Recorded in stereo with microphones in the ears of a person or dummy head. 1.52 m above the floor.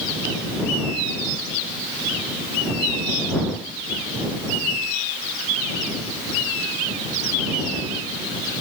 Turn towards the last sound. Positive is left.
No sound to turn to.